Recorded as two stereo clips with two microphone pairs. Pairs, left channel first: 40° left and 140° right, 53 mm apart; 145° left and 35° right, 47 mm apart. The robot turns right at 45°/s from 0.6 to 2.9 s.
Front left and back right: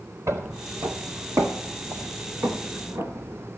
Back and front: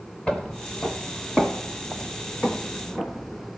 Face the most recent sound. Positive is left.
turn(degrees=-125)